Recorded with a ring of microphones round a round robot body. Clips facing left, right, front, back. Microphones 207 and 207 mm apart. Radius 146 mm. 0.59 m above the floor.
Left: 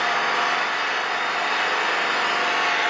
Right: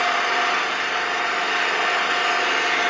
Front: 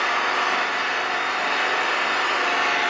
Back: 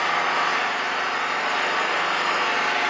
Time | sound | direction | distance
0.0 | an engine running | 70° right | 6 m